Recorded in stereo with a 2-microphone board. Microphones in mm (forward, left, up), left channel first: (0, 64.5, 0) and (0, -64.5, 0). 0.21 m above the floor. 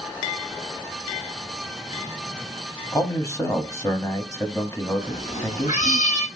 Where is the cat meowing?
85° left, 2.5 m.